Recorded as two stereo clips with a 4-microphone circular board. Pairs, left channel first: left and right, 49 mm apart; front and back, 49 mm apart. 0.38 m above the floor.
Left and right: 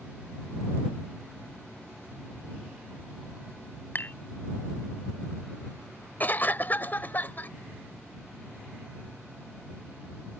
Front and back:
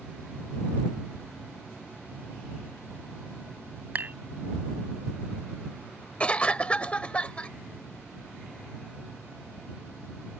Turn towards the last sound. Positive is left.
turn(degrees=55)